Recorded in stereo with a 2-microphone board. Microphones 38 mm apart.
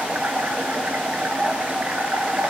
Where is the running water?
50° right (ahead or behind), 2.5 m.